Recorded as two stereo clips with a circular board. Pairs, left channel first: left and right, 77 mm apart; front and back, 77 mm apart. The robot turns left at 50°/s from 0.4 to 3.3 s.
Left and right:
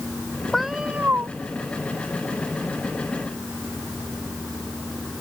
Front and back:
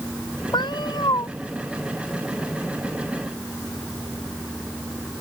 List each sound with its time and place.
0.5 s a cat meowing: straight ahead; by 1.3 s 35° right